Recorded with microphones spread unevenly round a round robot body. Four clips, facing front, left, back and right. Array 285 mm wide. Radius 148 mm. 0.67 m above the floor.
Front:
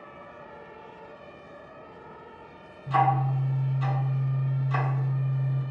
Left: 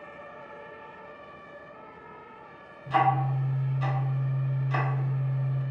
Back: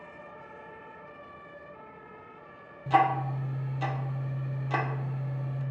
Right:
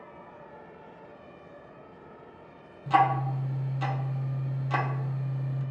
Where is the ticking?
150° right, 0.5 m.